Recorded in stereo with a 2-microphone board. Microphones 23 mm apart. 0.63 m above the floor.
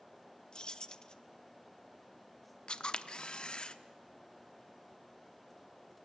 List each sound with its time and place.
0.5 s keys jangling: 40° left (ahead or behind), 0.9 m
2.7 s a camera shutter: 50° left (ahead or behind), 0.9 m